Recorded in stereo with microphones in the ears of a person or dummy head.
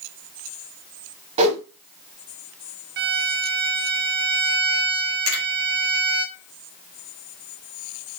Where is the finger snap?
85° right, 2.5 m.